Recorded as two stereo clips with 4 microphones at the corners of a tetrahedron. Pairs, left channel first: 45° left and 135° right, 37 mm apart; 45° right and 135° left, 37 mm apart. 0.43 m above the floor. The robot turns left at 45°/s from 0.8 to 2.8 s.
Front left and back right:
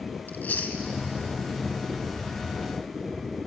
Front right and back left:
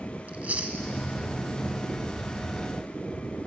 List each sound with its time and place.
0.3 s chewing: 90° left, 1.0 m; by 0.8 s 85° left, 1.0 m